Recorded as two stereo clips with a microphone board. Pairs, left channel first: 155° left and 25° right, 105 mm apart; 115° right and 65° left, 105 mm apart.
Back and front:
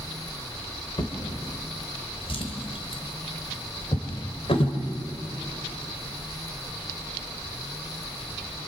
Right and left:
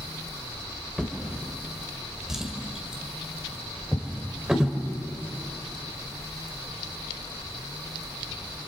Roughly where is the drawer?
Behind left.